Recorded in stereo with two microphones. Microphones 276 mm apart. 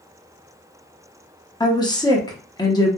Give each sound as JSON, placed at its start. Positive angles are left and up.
{"t": 1.6, "sound": "a woman speaking", "side_deg": 15, "distance_m": 0.6}